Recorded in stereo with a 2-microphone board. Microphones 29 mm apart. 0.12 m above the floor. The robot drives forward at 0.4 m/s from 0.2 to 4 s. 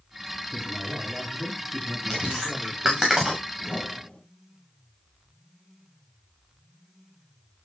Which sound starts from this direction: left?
A whoosh, at 3.6 s.